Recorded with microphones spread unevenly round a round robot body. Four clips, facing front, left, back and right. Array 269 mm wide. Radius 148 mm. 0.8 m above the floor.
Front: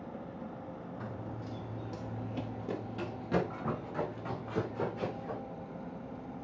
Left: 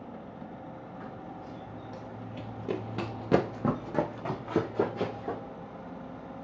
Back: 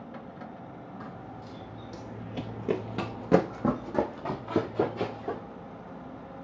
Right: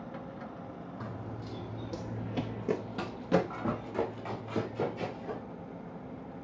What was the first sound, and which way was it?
Running footsteps, 65° right.